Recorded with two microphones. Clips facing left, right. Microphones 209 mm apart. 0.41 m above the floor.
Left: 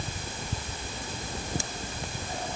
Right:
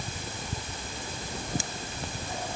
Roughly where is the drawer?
No drawer in this recording.